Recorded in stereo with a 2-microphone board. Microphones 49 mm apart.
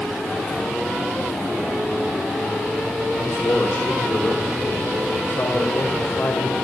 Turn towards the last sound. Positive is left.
turn(degrees=65)  # may be behind; listen again after turning